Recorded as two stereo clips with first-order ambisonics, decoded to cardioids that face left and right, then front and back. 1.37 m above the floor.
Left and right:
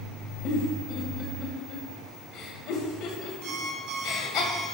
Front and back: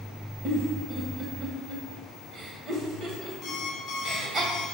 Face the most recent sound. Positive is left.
turn(degrees=-65)